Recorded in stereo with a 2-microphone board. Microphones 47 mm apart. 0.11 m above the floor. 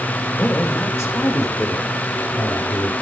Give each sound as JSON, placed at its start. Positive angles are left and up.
{"t": 0.4, "sound": "a man speaking", "side_deg": 55, "distance_m": 6.5}